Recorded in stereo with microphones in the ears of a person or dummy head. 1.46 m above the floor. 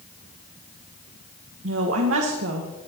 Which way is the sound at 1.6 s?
75° right (ahead or behind).